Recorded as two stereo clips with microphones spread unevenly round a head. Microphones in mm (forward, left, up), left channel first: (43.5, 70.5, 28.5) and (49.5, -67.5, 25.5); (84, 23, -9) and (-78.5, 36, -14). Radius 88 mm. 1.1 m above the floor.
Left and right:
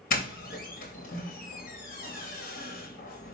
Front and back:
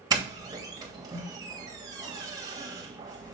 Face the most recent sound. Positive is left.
turn(degrees=110)